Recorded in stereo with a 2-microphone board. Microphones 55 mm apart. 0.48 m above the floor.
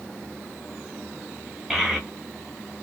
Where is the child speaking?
5° right (ahead or behind), 1.2 m.